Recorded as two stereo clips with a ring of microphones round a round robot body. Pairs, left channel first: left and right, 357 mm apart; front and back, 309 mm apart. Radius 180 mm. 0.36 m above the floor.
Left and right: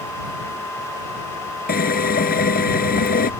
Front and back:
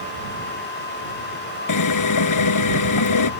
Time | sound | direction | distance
1.7 | a drill | 25° left | ?